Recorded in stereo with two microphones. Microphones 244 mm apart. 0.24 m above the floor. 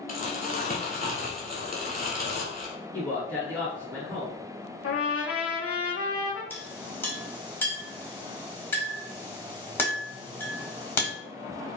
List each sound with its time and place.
0.1 s crumpling: 35° left (ahead or behind), 1.0 m
2.9 s a man speaking: 15° right (ahead or behind), 1.6 m
4.8 s a trumpet: 75° left (ahead or behind), 1.2 m
6.5 s a clink: 10° left (ahead or behind), 1.0 m